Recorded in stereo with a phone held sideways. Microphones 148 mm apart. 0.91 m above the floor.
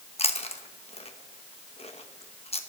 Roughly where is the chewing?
Left.